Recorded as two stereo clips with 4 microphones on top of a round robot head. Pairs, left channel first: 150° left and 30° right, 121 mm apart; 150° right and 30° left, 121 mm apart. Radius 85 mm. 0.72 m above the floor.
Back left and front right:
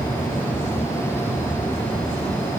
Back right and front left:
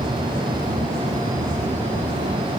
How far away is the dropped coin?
I don't hear a dropped coin.